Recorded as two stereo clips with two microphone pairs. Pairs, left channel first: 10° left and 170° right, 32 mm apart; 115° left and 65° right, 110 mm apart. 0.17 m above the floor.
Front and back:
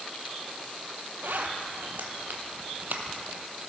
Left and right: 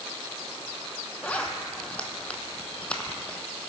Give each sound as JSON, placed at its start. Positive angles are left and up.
{"t": 1.2, "sound": "a zipper", "azimuth_deg": -165, "distance_m": 0.8}